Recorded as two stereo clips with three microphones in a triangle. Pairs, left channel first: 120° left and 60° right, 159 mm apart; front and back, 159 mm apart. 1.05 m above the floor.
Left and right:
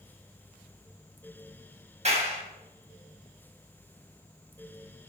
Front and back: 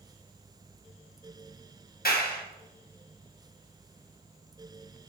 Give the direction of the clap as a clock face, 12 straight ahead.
1 o'clock.